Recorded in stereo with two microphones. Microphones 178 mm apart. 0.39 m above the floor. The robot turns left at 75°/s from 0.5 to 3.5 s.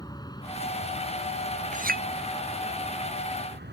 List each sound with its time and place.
0.0 s an aircraft: 20° left (ahead or behind); by 3.8 s 70° right (ahead or behind)
1.7 s a clink: 45° right (ahead or behind); by 2.0 s 65° right (ahead or behind)